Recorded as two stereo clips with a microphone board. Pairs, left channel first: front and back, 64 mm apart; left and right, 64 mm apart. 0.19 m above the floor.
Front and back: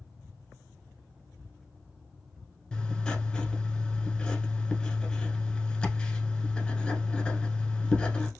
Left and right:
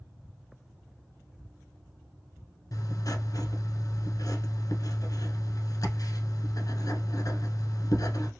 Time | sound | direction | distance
2.7 | writing | 80° left | 0.9 m